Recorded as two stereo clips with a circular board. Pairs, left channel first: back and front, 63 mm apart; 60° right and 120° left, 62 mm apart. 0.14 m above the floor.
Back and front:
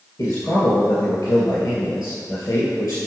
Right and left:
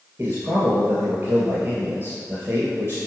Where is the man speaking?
175° left, 2.5 m.